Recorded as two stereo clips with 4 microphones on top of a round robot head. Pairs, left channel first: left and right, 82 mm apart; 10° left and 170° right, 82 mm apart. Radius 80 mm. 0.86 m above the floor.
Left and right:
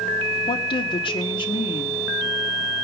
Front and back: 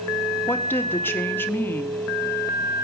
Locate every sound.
0.5 s a woman speaking: 75° left, 1.7 m